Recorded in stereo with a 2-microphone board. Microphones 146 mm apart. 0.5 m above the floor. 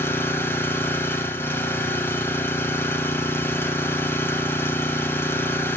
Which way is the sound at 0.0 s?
15° left (ahead or behind).